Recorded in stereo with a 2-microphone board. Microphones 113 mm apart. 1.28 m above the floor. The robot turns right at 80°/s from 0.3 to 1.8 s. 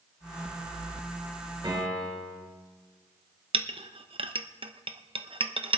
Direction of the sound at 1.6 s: 45° right (ahead or behind).